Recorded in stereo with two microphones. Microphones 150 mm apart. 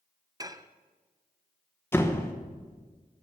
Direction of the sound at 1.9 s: 15° left (ahead or behind).